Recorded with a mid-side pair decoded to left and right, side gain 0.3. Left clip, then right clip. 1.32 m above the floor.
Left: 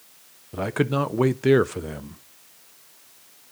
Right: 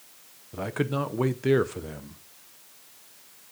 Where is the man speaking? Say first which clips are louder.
Left 5 dB; 50° left, 0.6 m.